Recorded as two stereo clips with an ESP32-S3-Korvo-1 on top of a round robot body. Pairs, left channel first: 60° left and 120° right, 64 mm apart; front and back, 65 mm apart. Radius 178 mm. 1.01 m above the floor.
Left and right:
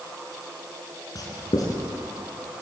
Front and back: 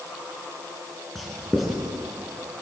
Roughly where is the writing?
Left.